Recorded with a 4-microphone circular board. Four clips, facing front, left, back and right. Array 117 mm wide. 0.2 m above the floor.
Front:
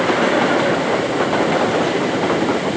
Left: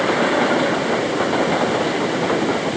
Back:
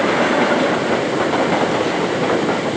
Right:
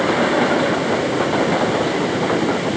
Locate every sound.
Only background noise.